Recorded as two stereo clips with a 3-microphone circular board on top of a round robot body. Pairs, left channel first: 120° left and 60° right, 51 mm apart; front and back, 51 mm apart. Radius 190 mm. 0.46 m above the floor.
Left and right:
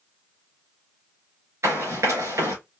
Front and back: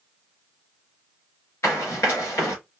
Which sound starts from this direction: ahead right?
Running footsteps, at 1.6 s.